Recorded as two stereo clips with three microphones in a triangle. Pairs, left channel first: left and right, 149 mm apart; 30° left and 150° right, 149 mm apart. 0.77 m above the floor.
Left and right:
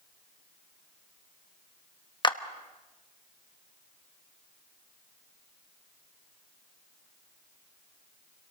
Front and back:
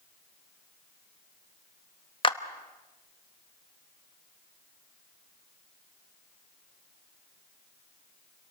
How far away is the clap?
About 0.9 m.